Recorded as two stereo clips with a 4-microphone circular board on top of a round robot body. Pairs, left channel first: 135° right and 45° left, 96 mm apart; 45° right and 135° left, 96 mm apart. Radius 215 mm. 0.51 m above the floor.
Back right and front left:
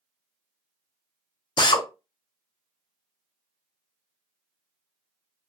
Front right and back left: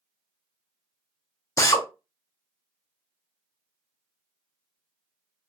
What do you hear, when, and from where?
1.6 s a drill: 100° right, 0.7 m